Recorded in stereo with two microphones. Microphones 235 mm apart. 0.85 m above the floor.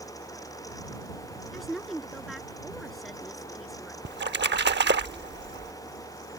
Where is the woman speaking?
Centre (ahead or behind).